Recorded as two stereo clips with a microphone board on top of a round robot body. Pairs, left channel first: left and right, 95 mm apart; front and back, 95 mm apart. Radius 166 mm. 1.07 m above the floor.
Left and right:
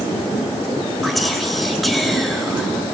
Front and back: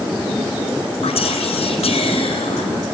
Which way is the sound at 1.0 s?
Straight ahead.